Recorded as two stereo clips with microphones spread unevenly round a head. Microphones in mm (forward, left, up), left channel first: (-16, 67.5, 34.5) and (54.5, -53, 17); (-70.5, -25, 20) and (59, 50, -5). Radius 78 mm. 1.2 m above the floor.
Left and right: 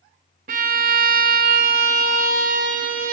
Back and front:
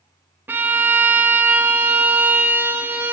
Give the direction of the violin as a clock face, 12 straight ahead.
2 o'clock.